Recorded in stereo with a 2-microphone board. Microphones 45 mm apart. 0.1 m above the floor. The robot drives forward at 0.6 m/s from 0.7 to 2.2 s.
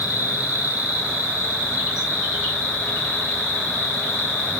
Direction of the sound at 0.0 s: 35° right (ahead or behind).